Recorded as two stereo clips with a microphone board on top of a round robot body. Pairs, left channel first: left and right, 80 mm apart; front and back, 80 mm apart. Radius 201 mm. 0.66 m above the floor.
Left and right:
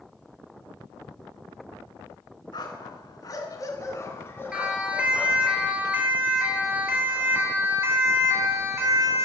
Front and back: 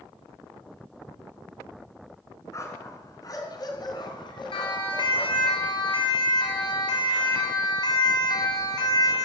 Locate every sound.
2.5 s a dog barking: 55° left, 4 m; by 5.5 s 10° left, 4 m
4.5 s a siren: 10° right, 6.5 m; by 9.2 s 35° right, 5 m